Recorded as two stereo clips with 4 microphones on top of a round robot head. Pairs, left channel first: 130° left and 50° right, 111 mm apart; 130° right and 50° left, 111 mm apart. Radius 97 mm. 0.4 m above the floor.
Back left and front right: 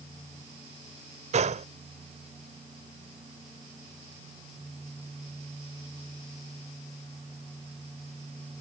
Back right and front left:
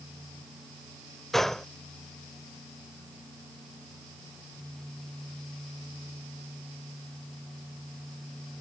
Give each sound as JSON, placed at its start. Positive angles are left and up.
{"t": 1.3, "sound": "a gunshot", "azimuth_deg": -40}